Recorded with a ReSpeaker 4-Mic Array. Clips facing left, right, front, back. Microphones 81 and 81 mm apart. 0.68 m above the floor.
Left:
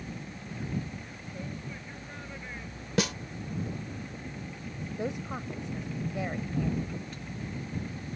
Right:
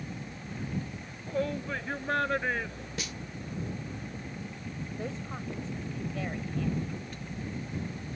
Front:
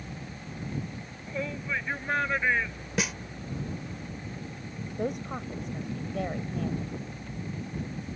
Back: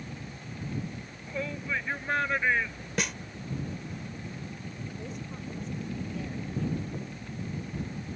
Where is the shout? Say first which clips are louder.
Right 11 dB, front 1 dB; 90° right.